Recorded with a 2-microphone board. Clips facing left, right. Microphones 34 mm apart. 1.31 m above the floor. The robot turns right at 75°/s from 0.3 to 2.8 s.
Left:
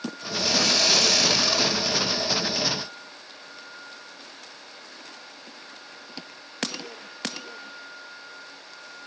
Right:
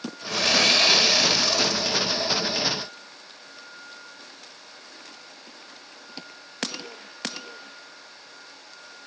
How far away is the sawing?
About 3 m.